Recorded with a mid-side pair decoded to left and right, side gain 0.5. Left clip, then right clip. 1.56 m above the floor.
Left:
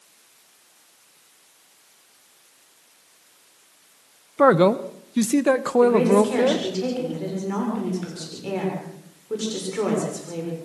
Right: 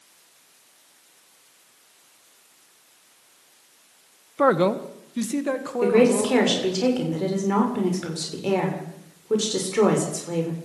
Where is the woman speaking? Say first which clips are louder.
Even; 40° right, 6.5 m.